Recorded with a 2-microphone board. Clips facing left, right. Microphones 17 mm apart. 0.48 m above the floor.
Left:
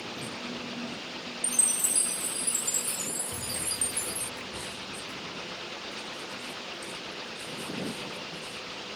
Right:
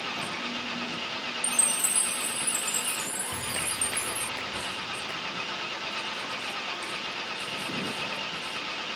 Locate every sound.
0.0 s an engine running: 55° right (ahead or behind)
1.4 s a chime: 20° left (ahead or behind)
3.3 s a clap: 50° right (ahead or behind)